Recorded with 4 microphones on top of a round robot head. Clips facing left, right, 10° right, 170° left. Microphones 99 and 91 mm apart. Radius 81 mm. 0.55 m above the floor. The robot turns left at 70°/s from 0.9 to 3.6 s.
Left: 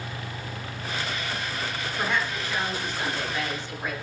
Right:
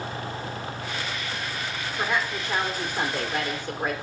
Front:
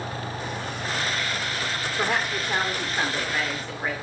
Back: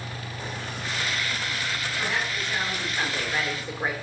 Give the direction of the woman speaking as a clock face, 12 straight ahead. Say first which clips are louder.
Right 1 dB, front 5 dB; 12 o'clock.